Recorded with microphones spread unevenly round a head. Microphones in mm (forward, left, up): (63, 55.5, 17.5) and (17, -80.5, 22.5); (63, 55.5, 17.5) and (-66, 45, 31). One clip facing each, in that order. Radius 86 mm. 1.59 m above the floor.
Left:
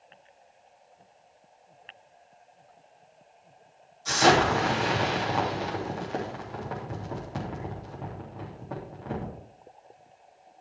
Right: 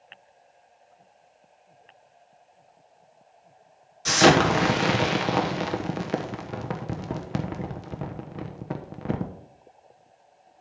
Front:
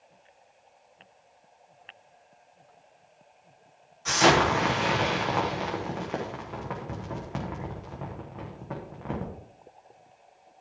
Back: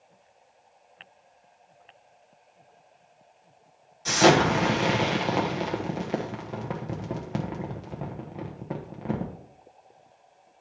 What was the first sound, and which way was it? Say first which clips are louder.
An explosion: right 3 dB, back 2 dB; 110° right.